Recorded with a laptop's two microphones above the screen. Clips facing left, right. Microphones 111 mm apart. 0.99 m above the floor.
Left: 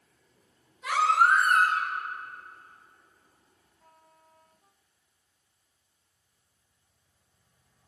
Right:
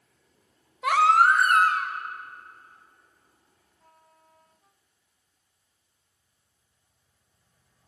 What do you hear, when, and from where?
0.8 s a baby crying: 65° right (ahead or behind), 0.7 m